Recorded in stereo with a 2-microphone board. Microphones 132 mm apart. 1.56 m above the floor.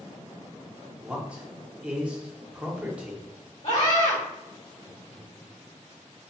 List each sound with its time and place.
1.0 s a man speaking: 10° right (ahead or behind), 0.7 m
3.6 s a scream: 65° left (ahead or behind), 1.7 m